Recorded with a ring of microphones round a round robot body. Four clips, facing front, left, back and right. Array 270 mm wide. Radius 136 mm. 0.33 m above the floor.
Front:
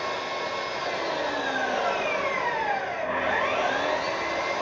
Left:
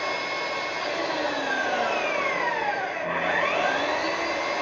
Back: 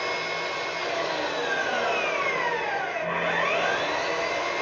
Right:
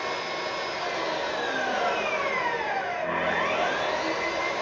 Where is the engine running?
145° left, 1.8 m.